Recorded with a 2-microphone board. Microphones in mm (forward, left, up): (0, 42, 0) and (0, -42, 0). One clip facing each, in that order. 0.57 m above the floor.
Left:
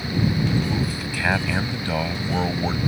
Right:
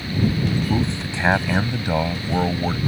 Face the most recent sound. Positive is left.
turn(degrees=-5)  # may be behind; listen again after turning